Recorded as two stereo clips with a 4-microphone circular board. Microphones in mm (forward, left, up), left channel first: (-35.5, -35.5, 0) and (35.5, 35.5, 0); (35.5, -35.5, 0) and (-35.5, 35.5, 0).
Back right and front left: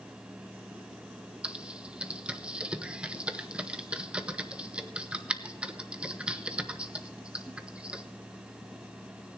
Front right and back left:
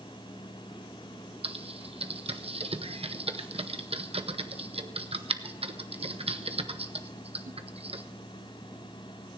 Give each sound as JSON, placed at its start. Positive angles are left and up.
{"t": 1.4, "sound": "typing on a keyboard", "azimuth_deg": 125, "distance_m": 0.8}